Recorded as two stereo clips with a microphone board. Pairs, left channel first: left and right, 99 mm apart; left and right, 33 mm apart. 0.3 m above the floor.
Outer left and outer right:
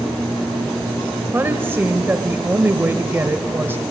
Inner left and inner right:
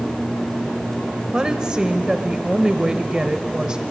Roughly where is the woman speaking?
Right.